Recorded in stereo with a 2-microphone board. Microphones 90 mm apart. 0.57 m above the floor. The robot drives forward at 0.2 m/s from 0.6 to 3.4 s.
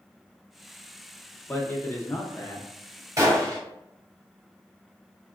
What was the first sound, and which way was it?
A man speaking, 25° left (ahead or behind).